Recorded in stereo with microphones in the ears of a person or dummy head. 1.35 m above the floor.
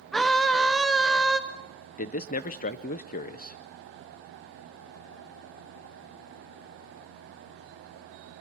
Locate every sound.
0.1 s a scream: 5° left (ahead or behind), 0.8 m
2.0 s a man speaking: 40° left (ahead or behind), 0.6 m